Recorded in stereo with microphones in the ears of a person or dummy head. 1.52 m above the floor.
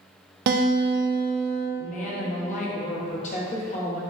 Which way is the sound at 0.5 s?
55° right (ahead or behind).